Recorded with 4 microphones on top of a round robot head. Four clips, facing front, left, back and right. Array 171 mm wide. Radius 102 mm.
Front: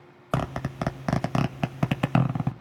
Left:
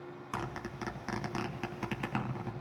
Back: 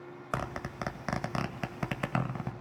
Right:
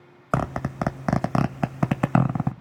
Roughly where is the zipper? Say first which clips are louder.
Right 14 dB, front 7 dB; right.